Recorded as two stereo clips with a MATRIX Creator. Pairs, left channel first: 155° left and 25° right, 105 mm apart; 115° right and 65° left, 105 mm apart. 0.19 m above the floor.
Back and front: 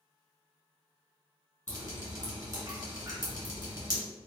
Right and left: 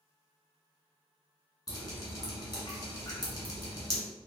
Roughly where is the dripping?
Right.